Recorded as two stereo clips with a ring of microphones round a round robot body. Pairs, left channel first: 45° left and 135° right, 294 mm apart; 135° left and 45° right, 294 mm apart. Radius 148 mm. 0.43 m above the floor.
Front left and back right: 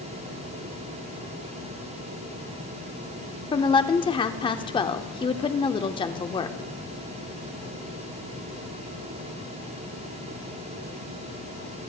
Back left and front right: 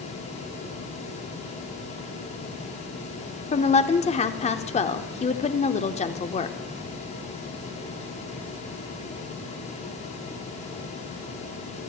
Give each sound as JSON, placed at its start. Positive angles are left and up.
{"t": 3.5, "sound": "a woman speaking", "azimuth_deg": 100, "distance_m": 0.8}